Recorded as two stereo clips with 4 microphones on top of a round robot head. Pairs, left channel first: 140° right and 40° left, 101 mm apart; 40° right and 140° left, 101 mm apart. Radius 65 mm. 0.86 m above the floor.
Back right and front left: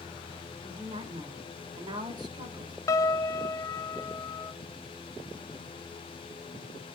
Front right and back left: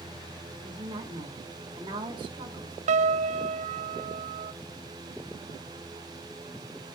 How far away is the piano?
About 0.6 m.